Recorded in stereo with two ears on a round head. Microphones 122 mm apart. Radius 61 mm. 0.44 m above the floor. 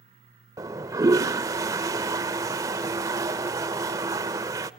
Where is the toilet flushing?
25° right (ahead or behind), 0.6 m.